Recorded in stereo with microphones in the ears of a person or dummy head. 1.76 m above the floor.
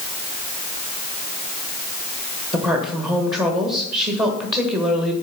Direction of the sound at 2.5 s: 20° right (ahead or behind).